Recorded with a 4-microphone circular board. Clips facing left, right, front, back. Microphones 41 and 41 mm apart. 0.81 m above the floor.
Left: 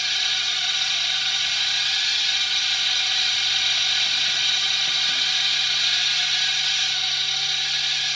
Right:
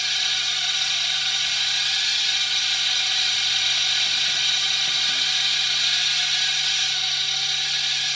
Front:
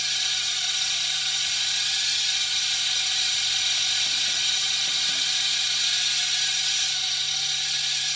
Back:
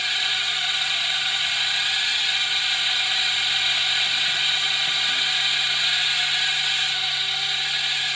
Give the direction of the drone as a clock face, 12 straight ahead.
6 o'clock.